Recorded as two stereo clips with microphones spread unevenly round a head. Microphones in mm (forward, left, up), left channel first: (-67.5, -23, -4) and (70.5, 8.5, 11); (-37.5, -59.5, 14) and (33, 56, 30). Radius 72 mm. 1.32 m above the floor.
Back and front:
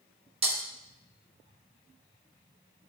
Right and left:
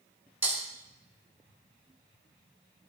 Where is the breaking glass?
5° right, 1.1 m.